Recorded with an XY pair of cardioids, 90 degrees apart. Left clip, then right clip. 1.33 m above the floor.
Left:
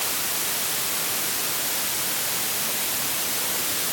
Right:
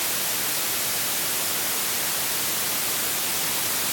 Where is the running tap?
No running tap in this recording.